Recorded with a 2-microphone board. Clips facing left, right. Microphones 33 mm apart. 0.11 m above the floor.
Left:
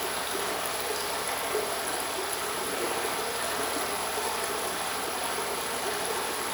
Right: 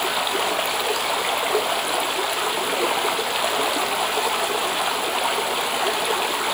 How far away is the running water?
About 1.6 m.